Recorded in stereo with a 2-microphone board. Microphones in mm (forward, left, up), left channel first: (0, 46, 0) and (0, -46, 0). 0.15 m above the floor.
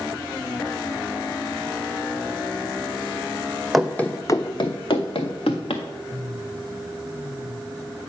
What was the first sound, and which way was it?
Running footsteps, centre (ahead or behind).